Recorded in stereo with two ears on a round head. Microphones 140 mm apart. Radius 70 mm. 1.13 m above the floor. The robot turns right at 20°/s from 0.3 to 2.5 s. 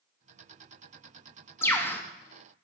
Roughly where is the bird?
Centre.